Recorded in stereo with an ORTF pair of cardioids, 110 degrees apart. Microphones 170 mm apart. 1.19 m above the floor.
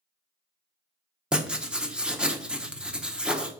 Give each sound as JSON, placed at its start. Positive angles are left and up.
{"t": 1.3, "sound": "writing", "azimuth_deg": -5, "distance_m": 0.5}